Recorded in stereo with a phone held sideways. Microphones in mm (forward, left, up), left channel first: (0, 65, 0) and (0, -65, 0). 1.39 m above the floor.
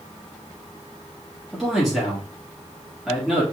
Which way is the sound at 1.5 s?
Centre (ahead or behind).